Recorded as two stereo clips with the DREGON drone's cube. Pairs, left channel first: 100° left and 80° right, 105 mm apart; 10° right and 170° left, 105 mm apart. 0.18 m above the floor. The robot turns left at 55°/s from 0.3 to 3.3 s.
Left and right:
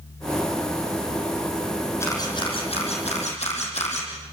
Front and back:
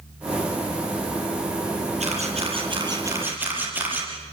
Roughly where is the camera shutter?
Behind.